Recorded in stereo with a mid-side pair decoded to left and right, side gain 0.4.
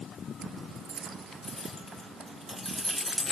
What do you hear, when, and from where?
1.4 s keys jangling: 20° left, 2.5 m; by 3.3 s 5° right, 1.8 m